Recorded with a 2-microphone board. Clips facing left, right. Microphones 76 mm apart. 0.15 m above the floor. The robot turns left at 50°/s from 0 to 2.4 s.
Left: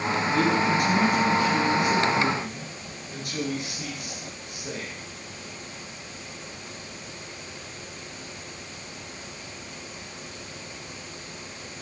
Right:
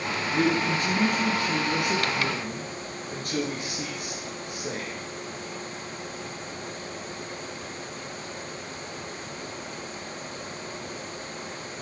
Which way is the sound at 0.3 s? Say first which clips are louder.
Left 1 dB; 15° right.